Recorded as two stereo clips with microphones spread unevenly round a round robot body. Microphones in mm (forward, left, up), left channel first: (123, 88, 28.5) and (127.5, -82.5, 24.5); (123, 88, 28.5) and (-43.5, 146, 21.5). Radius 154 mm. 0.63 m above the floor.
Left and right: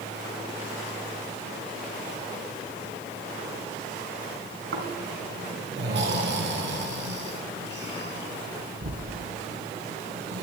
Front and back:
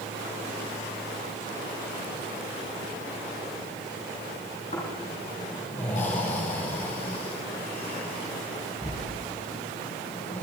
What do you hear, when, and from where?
4.7 s snoring: 85° right, 2.5 m